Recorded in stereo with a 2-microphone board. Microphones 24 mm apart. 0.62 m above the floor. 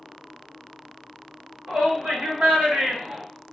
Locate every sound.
1.7 s a shout: 70° right (ahead or behind), 2.0 m; by 3.2 s 50° right (ahead or behind), 1.5 m